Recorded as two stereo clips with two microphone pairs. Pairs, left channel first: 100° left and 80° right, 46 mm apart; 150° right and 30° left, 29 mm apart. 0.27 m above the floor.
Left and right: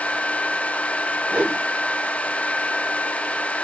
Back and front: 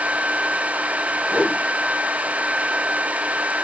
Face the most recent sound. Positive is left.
turn(degrees=-15)